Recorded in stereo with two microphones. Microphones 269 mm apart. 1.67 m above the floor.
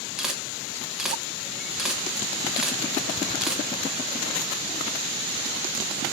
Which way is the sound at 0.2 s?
Centre (ahead or behind).